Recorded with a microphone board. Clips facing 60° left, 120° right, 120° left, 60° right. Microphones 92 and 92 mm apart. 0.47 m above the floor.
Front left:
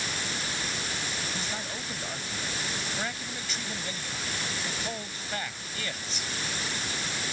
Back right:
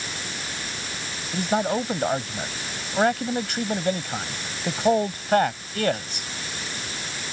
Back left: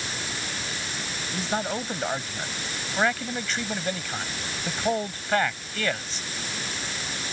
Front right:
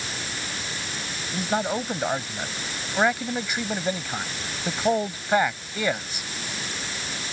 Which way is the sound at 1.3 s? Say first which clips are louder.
Back right 13 dB, front right 3 dB; 135° right.